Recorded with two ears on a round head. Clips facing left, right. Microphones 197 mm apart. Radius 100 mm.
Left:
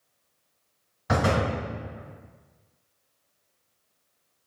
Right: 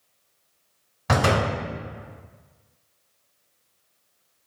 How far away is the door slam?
About 1.5 m.